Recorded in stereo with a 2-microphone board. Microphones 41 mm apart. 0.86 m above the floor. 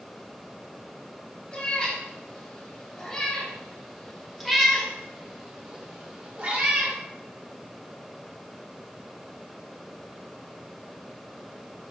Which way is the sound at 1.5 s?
20° left (ahead or behind).